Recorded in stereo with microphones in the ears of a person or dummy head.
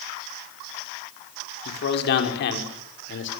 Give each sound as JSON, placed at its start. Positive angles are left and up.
{"t": 1.6, "sound": "a man speaking", "side_deg": 65, "distance_m": 5.0}